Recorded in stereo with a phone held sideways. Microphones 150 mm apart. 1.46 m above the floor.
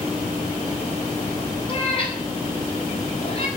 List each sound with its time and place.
1.7 s a cat meowing: 35° left (ahead or behind), 4 m; by 3.5 s 40° left (ahead or behind), 5 m